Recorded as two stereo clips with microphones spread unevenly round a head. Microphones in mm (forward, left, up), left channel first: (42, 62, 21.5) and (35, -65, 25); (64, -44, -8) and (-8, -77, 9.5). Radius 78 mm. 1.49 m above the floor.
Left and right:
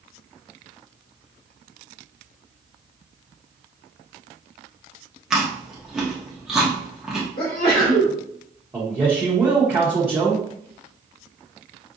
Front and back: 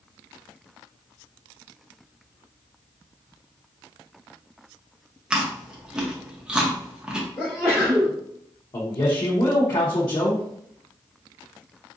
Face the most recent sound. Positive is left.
turn(degrees=-15)